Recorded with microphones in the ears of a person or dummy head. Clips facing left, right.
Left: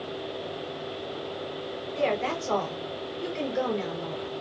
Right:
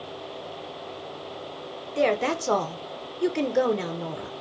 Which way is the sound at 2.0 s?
60° right (ahead or behind).